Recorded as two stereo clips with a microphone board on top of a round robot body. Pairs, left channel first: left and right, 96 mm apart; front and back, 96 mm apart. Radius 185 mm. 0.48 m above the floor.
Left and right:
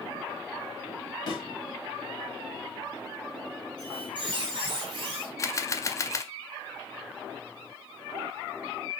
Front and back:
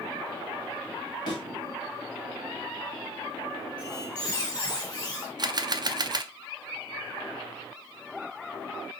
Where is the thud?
45° left, 2 m.